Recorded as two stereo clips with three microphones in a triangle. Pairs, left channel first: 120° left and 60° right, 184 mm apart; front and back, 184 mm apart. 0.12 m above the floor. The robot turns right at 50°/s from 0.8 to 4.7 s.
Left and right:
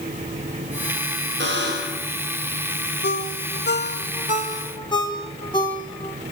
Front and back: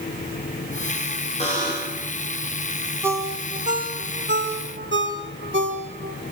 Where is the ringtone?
100° left, 3.5 m; by 6.2 s 175° right, 3.5 m.